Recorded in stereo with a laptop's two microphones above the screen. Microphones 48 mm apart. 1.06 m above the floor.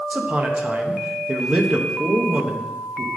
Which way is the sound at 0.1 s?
25° right (ahead or behind).